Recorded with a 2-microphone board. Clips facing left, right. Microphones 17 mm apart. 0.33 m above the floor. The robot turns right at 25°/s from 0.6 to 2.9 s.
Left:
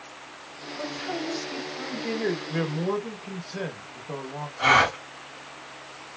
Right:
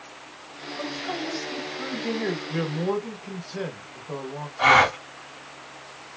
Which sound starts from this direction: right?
A gasp, at 4.6 s.